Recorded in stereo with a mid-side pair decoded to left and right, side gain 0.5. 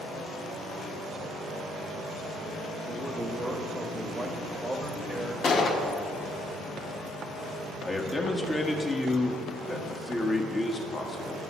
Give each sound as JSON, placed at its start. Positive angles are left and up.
{"t": 2.9, "sound": "a man speaking", "azimuth_deg": -15, "distance_m": 1.4}
{"t": 5.4, "sound": "a gunshot", "azimuth_deg": 50, "distance_m": 1.5}
{"t": 7.8, "sound": "a man speaking", "azimuth_deg": 20, "distance_m": 1.7}